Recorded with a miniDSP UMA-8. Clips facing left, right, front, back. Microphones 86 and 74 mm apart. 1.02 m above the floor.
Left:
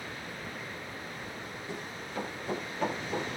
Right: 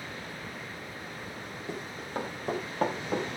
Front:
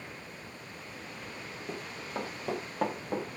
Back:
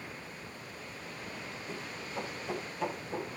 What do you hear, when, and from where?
1.7 s running footsteps: 40° right, 10 m; by 3.3 s 45° right, 9.5 m